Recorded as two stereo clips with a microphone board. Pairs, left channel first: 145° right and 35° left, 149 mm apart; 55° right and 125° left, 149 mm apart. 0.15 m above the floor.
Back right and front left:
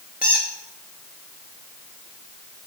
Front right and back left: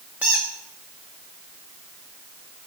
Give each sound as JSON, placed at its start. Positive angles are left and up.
{"t": 0.2, "sound": "a squeak", "azimuth_deg": -155, "distance_m": 1.2}